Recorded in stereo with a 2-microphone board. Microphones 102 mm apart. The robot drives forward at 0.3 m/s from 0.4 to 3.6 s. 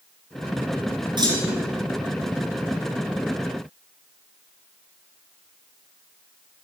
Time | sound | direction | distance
1.2 | a clunk | 50° right (ahead or behind) | 2.5 m